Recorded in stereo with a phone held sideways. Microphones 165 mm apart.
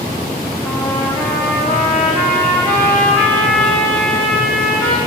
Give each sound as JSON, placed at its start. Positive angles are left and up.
{"t": 0.6, "sound": "a trumpet", "side_deg": 10, "distance_m": 3.5}